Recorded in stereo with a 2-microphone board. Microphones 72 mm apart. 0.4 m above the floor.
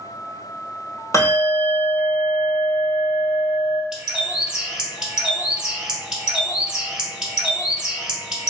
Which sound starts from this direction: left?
A bell, at 1.1 s.